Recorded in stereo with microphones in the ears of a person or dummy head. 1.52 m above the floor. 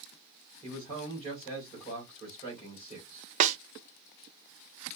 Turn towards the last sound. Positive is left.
turn(degrees=-40)  # may be behind; listen again after turning